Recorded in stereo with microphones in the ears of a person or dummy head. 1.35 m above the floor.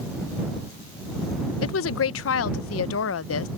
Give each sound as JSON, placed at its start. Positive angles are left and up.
{"t": 1.6, "sound": "a woman speaking", "side_deg": 70}